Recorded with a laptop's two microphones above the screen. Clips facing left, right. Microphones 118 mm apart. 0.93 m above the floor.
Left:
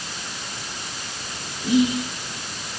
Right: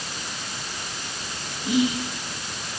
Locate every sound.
1.6 s whispering: 50° left (ahead or behind), 2 m